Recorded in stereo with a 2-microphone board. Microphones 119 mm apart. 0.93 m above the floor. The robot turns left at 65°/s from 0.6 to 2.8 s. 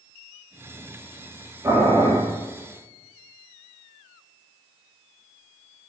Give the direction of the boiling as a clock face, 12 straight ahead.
1 o'clock.